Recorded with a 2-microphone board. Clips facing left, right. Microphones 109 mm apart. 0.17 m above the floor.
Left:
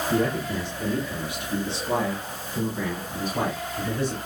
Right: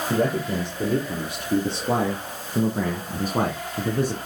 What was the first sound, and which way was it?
A man speaking, 45° right (ahead or behind).